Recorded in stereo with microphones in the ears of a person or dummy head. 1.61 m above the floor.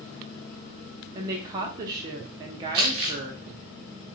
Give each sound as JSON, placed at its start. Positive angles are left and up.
{"t": 1.1, "sound": "a woman speaking", "side_deg": -25, "distance_m": 0.5}
{"t": 2.7, "sound": "crumpling", "side_deg": -20, "distance_m": 1.4}